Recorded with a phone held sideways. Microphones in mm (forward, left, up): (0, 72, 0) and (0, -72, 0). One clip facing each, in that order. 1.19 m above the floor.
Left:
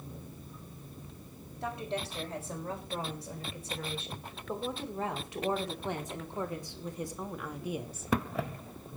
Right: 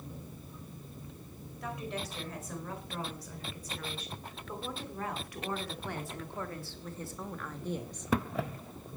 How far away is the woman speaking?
About 4.5 m.